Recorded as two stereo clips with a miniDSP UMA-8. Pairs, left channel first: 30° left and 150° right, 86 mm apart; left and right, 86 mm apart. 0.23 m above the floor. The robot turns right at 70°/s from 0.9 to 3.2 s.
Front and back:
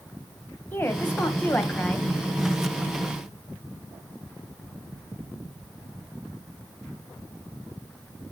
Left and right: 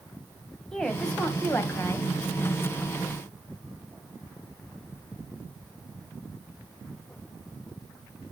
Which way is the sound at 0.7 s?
15° left.